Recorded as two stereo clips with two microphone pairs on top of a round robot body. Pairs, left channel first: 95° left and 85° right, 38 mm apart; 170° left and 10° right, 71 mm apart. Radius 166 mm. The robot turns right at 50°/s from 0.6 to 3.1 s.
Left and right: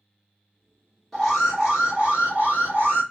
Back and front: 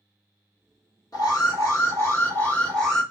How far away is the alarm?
About 2.5 m.